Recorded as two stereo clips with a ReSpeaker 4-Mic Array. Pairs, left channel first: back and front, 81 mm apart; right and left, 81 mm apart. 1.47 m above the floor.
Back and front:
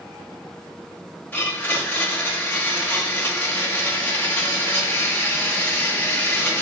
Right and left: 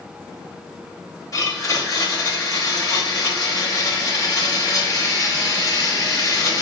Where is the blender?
115° right, 1.1 m.